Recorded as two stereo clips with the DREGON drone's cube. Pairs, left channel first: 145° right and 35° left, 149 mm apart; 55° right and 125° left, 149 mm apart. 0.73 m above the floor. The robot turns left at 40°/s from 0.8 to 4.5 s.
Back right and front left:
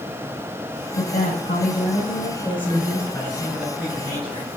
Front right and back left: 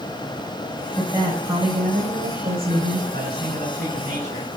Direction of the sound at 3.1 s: 140° left.